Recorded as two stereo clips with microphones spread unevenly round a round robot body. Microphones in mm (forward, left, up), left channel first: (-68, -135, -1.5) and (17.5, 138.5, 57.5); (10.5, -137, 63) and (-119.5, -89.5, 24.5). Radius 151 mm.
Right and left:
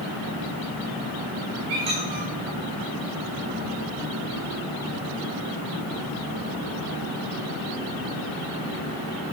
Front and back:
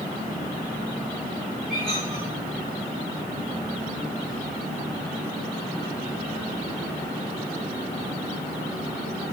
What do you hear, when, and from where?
1.7 s a squeak: 70° left, 5.5 m